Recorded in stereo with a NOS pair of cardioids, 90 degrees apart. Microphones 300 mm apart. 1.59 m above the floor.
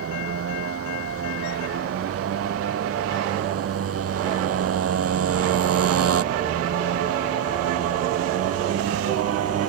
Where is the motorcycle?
55° right; by 9.7 s 60° right.